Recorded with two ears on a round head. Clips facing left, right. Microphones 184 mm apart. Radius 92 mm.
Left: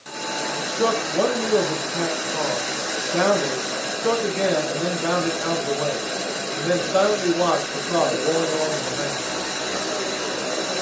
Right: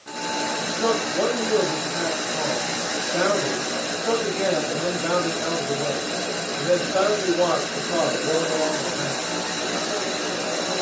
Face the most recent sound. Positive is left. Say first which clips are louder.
# left 2 dB
turn(degrees=85)